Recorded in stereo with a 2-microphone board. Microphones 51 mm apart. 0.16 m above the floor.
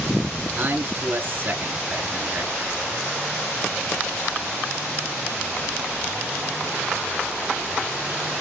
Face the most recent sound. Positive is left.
turn(degrees=-40)  # may be behind; listen again after turning